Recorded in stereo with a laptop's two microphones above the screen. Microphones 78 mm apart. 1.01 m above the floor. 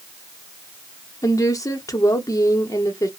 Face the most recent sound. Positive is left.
turn(degrees=45)  # may be behind; listen again after turning